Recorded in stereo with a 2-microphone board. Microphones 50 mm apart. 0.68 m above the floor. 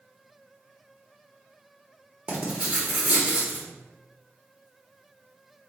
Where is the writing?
25° right (ahead or behind), 1.3 m.